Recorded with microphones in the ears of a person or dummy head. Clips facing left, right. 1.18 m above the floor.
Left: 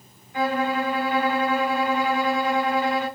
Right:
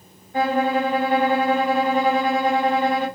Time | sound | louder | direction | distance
0.3 | a violin | right 4 dB | 40° right (ahead or behind) | 1.5 m